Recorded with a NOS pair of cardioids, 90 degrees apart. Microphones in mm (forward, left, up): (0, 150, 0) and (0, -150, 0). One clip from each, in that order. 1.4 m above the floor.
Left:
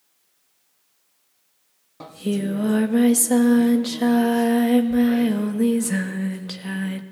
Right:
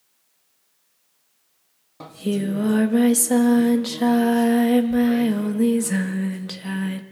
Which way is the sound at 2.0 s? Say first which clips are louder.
Right 1 dB; straight ahead.